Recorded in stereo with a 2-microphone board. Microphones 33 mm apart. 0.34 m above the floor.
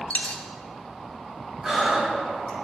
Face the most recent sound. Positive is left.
turn(degrees=-15)  # may be behind; listen again after turning